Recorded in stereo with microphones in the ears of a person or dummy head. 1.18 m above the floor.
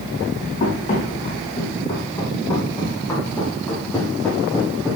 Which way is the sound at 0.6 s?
40° left (ahead or behind).